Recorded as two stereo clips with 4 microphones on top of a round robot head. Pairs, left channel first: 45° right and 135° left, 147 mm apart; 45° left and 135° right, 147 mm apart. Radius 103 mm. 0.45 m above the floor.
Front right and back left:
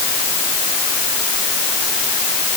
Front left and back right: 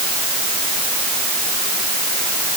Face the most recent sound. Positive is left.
No sound to turn to.